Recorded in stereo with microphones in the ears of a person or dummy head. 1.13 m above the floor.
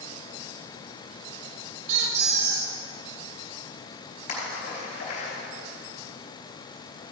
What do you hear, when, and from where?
1.9 s a squeak: 45° right (ahead or behind), 1.8 m
4.3 s a splash: 55° left (ahead or behind), 4 m